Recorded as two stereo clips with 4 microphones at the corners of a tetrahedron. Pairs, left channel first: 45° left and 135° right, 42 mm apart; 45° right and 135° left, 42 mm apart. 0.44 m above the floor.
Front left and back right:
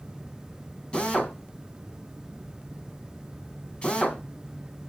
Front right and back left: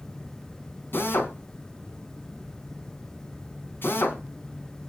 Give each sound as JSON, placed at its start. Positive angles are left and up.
{"t": 0.9, "sound": "a drill", "azimuth_deg": -20, "distance_m": 3.0}